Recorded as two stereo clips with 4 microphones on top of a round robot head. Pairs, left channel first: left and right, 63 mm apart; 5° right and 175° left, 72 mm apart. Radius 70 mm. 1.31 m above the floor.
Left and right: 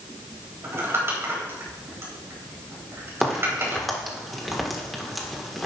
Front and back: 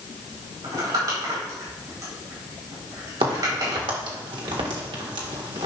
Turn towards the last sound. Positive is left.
turn(degrees=180)